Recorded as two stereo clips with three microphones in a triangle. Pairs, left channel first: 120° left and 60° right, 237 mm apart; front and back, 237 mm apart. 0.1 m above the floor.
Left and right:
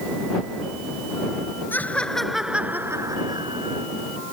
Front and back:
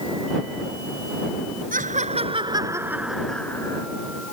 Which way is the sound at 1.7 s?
165° right.